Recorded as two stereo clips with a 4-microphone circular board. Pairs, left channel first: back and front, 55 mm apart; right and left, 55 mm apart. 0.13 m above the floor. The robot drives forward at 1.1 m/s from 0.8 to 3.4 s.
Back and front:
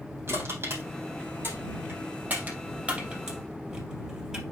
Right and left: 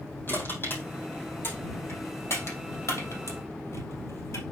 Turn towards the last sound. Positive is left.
turn(degrees=-75)